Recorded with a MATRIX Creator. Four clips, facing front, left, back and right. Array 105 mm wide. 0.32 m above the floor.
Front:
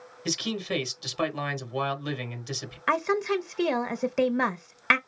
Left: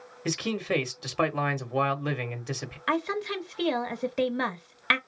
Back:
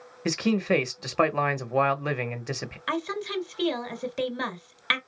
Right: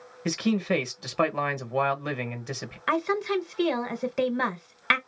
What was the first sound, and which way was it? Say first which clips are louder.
A man speaking: right 4 dB, back 7 dB; 175° right.